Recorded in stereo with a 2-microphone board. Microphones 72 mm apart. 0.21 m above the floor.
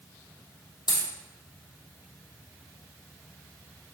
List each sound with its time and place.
0.9 s a dropped coin: 75° left (ahead or behind), 3 m